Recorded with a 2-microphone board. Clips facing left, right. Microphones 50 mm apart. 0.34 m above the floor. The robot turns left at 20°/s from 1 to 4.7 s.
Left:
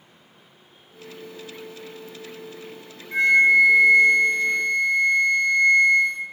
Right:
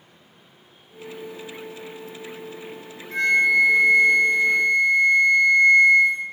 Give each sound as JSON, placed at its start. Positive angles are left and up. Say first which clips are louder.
{"t": 3.1, "sound": "a flute", "louder": "left 3 dB", "azimuth_deg": 25, "distance_m": 1.5}